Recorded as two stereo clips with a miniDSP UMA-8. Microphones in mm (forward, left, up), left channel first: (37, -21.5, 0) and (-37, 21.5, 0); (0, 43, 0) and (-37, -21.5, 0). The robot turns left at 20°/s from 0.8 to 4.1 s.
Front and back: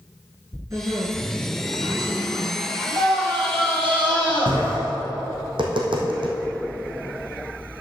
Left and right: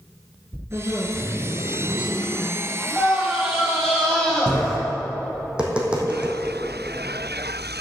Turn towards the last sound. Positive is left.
turn(degrees=165)